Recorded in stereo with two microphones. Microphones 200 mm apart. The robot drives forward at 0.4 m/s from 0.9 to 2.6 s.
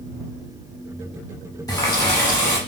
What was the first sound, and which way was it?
A running tap, 15° left (ahead or behind).